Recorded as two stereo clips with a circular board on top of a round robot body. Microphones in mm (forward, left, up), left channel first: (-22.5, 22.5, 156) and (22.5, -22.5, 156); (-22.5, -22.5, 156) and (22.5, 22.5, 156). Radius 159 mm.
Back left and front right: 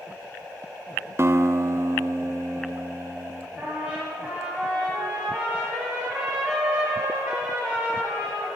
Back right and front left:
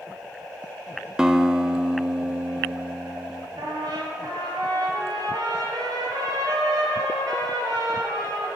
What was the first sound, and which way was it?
A guitar, 30° right.